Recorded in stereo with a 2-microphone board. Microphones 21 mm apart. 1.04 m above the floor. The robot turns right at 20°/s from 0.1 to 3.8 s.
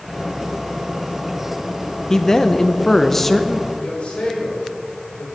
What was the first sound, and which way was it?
A man speaking, 135° left.